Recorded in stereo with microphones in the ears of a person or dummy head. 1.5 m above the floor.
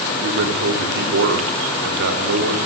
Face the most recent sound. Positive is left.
turn(degrees=-60)  # may be behind; listen again after turning